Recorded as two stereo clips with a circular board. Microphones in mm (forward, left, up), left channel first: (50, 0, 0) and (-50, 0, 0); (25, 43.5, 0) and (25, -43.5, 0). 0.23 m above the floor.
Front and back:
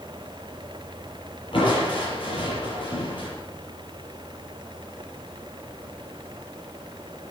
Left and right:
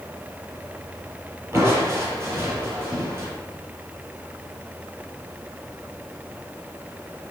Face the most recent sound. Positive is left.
turn(degrees=-30)